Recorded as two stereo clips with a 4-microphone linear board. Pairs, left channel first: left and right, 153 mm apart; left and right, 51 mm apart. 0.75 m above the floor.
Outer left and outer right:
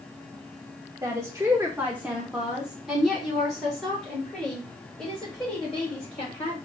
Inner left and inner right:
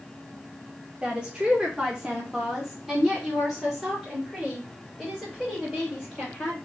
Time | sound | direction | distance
1.0 | a woman speaking | 20° right (ahead or behind) | 1.1 m